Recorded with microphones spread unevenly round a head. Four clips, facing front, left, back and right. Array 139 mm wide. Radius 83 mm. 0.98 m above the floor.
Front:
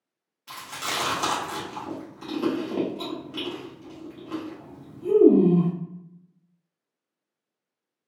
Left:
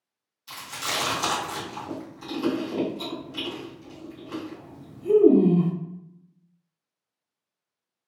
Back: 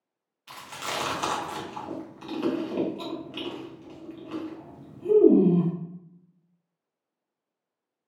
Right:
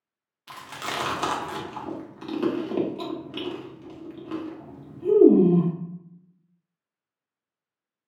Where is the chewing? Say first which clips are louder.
Even, front 2 dB; 70° right, 0.8 m.